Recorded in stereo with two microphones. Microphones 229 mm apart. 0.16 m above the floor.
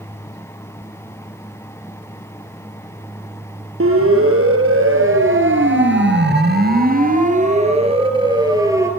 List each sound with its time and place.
3.8 s a siren: 70° right (ahead or behind), 5 m; by 8.9 s 10° right (ahead or behind), 4 m